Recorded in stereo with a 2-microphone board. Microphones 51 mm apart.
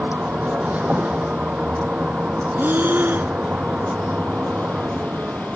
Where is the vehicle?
25° right (ahead or behind).